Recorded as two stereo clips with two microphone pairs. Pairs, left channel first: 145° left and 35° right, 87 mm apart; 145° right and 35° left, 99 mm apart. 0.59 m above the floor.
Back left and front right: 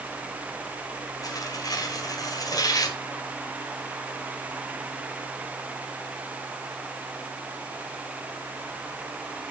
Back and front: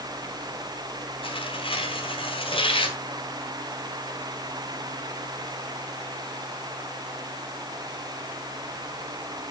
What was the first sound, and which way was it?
Tearing paper, 170° right.